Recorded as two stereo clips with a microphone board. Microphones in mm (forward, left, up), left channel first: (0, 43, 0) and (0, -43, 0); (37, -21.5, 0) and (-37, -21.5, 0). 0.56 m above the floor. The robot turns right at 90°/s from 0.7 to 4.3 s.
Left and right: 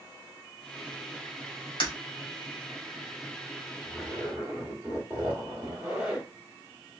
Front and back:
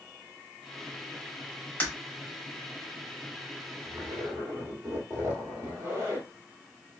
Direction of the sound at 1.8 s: 65° left.